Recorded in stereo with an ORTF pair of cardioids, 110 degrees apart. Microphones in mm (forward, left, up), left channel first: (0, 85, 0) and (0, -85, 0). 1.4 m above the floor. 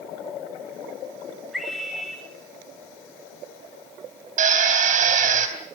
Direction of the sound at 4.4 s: 55° right.